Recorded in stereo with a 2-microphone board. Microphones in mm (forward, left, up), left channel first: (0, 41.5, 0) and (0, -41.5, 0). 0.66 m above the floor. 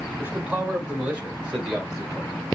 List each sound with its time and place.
0.2 s a man speaking: 20° right (ahead or behind), 1.8 m; by 2.5 s 5° right (ahead or behind), 3 m